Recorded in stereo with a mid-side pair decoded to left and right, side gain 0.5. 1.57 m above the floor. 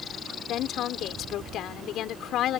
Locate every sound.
0.5 s a woman speaking: 65° left